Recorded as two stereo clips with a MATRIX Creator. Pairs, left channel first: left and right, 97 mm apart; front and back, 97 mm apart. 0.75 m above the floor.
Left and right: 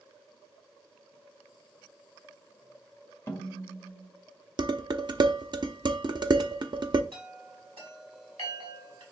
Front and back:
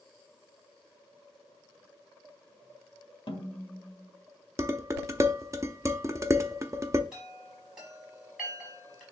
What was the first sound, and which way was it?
A snare drum, 25° left.